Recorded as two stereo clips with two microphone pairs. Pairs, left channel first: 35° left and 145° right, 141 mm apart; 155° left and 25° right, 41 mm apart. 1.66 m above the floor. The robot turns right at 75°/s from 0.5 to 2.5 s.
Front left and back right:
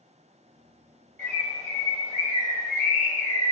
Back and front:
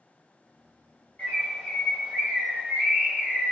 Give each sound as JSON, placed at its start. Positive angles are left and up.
{"t": 1.2, "sound": "a bird", "azimuth_deg": -160, "distance_m": 1.3}